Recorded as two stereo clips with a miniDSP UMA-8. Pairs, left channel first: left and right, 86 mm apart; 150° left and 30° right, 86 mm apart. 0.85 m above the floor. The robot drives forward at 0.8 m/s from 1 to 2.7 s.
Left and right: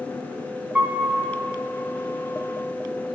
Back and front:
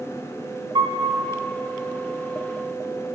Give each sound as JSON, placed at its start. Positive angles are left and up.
{"t": 0.8, "sound": "a piano", "azimuth_deg": -15, "distance_m": 0.9}